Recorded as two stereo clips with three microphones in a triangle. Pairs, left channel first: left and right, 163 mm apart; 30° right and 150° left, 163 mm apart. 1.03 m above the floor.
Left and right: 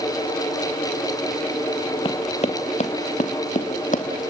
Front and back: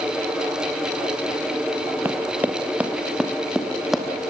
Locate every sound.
2.0 s running footsteps: 85° left, 1.2 m; by 4.3 s 60° left, 2 m